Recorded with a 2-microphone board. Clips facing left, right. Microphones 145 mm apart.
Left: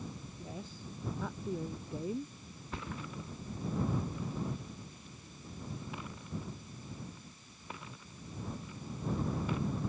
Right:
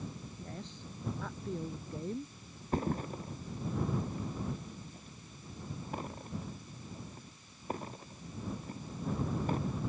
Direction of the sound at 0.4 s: 5° left (ahead or behind).